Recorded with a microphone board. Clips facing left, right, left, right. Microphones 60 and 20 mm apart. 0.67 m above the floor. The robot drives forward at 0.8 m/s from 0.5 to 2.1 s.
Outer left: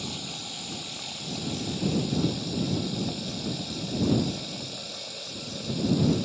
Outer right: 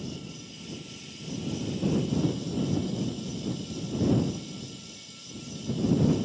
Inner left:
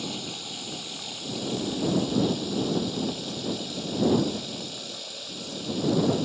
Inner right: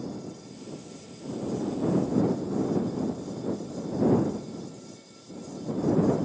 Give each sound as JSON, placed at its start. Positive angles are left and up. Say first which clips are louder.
{"t": 0.0, "sound": "running water", "louder": "outer left 2 dB, inner left 5 dB", "side_deg": 70}